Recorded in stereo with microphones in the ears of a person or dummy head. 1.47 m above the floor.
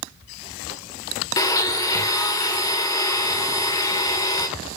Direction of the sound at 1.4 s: 15° left (ahead or behind).